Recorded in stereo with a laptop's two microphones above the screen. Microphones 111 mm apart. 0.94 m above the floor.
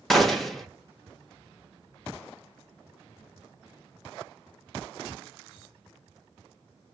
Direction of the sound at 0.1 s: Centre (ahead or behind).